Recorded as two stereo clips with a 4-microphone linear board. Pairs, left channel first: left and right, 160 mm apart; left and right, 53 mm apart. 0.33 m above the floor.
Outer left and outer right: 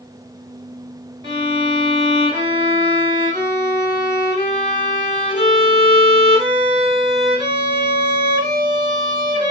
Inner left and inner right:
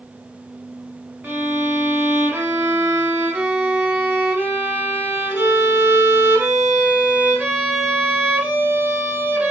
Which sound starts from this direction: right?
A violin, at 1.2 s.